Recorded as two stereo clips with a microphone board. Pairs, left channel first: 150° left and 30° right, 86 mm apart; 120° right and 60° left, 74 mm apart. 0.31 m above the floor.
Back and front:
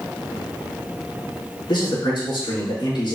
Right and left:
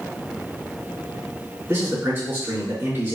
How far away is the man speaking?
About 4 m.